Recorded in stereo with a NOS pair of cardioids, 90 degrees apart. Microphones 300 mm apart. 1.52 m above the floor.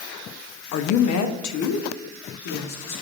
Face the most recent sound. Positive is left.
turn(degrees=70)